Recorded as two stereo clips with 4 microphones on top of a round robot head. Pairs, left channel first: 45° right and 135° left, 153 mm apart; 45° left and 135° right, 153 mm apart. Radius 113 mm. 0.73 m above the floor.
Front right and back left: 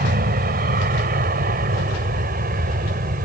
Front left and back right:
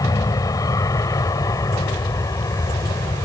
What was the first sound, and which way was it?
An aircraft, 115° left.